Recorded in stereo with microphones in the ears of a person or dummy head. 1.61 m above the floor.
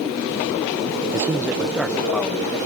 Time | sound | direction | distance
1.1 | a man speaking | 15° right (ahead or behind) | ?